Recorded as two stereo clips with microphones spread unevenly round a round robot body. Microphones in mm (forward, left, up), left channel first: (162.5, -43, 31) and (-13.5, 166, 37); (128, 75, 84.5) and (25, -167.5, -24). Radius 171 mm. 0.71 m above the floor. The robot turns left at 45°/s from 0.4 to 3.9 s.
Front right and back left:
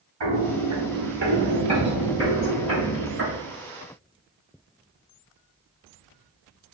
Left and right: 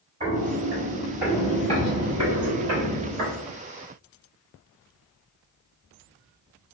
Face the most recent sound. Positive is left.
turn(degrees=145)